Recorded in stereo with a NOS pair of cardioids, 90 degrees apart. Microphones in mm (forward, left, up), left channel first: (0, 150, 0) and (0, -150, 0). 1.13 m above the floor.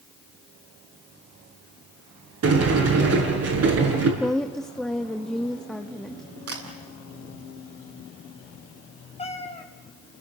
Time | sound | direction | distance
2.4 | a sliding door | 55° right | 7.5 m
4.2 | a woman speaking | straight ahead | 1.6 m
6.5 | a camera shutter | 50° right | 7.5 m
9.2 | a cat meowing | 20° left | 3 m